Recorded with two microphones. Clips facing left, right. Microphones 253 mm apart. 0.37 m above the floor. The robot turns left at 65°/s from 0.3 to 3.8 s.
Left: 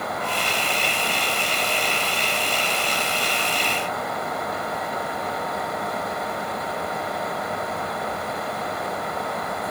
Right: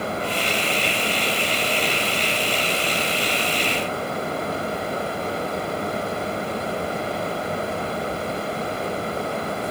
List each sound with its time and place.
Only background noise.